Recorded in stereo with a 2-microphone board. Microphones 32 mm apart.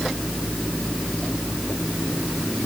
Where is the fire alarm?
I don't hear a fire alarm.